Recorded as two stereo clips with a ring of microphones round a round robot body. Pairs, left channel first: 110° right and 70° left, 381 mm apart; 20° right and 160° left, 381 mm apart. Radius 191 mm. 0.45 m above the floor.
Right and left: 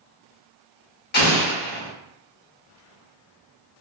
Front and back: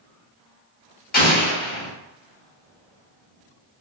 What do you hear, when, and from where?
1.1 s an explosion: 70° right, 0.7 m